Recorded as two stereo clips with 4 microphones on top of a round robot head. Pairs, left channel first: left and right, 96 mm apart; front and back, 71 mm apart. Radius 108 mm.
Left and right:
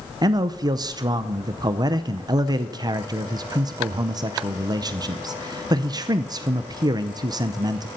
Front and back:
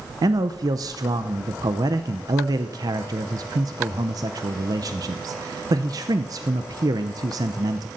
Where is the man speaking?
140° right, 0.7 m.